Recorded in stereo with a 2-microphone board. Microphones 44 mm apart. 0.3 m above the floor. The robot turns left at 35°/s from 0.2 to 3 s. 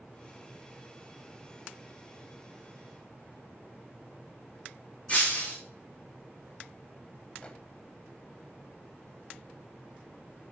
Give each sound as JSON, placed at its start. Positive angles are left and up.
{"t": 5.1, "sound": "breaking glass", "side_deg": 35, "distance_m": 2.5}
{"t": 7.4, "sound": "a microwave", "side_deg": 25, "distance_m": 1.0}